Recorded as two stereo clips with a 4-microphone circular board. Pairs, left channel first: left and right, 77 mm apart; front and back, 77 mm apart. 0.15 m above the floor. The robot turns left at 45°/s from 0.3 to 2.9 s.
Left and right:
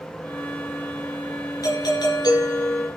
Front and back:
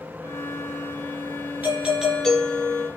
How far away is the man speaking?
I don't hear a man speaking.